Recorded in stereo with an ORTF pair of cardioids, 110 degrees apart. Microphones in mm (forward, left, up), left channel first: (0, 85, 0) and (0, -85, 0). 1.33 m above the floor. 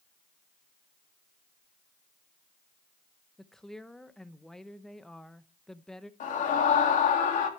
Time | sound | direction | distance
3.4 | a woman speaking | 5° left | 0.9 m
6.2 | a scream | 55° left | 3 m